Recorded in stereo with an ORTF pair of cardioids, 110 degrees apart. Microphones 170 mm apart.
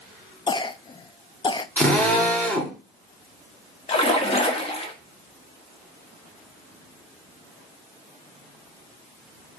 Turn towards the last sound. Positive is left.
turn(degrees=35)